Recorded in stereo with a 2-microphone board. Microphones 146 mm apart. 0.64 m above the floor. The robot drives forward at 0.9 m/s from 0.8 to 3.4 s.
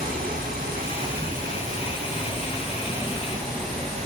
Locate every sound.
0.0 s running water: 70° right (ahead or behind), 4 m; by 4.0 s 45° right (ahead or behind), 5 m